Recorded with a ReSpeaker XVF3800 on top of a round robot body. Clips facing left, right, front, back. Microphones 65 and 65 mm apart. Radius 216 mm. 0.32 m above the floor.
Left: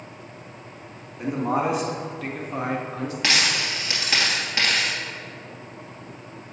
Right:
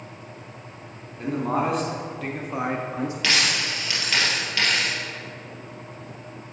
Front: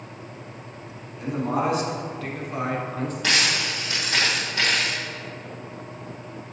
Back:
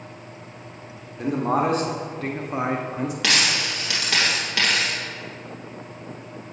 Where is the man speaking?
165° left, 1.7 m; by 3.1 s 110° right, 1.2 m.